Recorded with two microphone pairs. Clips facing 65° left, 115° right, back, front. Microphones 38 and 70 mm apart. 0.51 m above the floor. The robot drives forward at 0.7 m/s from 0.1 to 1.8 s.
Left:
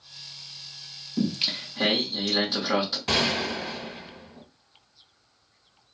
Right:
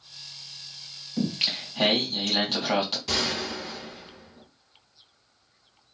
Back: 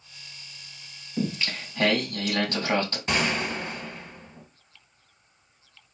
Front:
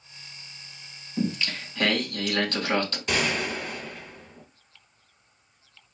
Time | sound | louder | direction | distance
1.2 | singing | left 1 dB, front 1 dB | 115° right | 3 m
3.1 | a gunshot | left 3 dB, back 1 dB | 120° left | 0.8 m